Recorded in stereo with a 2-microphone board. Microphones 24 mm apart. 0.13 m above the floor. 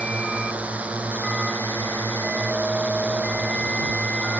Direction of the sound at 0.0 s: 75° right (ahead or behind).